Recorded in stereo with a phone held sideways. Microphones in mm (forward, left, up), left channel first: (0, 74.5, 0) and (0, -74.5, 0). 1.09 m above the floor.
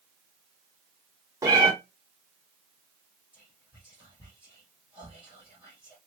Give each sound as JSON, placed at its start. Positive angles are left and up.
{"t": 1.4, "sound": "a cat meowing", "side_deg": -20, "distance_m": 0.8}
{"t": 3.3, "sound": "whispering", "side_deg": -10, "distance_m": 1.3}